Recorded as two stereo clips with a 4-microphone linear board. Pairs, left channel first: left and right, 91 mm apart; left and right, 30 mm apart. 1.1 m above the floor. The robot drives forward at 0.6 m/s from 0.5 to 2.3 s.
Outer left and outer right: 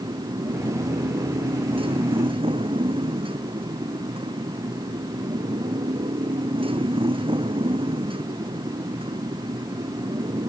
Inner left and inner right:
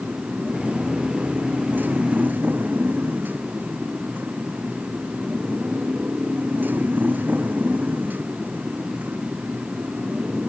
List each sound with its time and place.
0.0 s a motorcycle: 75° right (ahead or behind); by 10.5 s 80° right